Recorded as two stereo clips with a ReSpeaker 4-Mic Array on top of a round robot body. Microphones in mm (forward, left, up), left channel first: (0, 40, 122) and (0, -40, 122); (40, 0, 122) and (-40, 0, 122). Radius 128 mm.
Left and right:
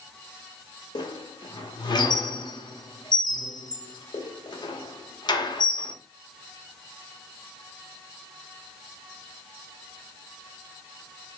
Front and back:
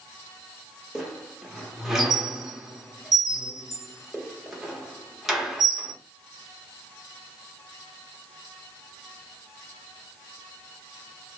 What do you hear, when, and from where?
0.9 s a squeak: 95° left, 1.1 m